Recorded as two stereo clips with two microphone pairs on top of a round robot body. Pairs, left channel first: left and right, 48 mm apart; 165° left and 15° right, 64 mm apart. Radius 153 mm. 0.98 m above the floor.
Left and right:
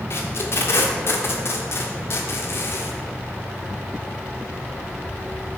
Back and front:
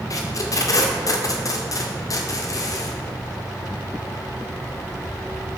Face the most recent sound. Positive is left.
turn(degrees=125)